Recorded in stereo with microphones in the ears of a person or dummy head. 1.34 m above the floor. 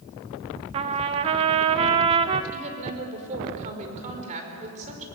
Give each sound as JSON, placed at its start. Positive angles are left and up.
{"t": 0.7, "sound": "a trumpet", "side_deg": -30, "distance_m": 0.8}
{"t": 2.5, "sound": "a woman speaking", "side_deg": -40, "distance_m": 5.0}